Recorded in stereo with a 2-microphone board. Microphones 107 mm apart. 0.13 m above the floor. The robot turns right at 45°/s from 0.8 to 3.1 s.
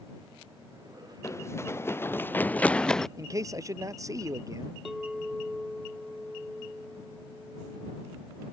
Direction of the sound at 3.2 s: 35° right (ahead or behind).